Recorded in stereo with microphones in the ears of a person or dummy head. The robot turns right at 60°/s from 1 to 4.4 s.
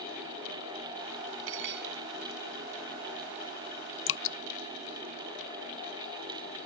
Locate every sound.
1.5 s cutlery clinking: 75° right (ahead or behind); by 1.9 s 50° right (ahead or behind)
4.1 s dripping: 60° left (ahead or behind); by 4.4 s 55° left (ahead or behind)